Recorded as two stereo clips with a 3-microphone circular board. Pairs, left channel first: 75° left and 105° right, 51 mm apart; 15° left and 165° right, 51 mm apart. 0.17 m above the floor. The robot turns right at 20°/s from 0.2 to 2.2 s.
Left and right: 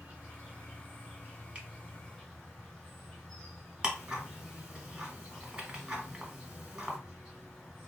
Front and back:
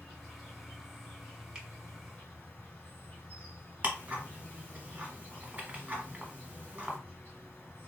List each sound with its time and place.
0.0 s an insect: 75° right, 2 m; by 7.9 s 35° right, 2 m
1.6 s a finger snap: 115° right, 0.9 m
3.8 s ticking: 145° right, 1.1 m